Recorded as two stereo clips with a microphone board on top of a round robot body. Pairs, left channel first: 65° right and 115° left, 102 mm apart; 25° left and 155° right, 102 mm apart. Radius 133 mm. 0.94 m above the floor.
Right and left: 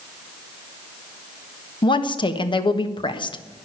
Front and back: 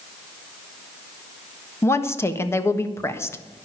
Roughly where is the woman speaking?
Ahead right.